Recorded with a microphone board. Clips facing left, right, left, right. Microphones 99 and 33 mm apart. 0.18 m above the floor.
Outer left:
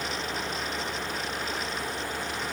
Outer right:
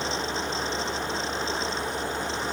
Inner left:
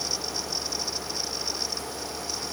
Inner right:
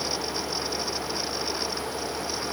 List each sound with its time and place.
Only background noise.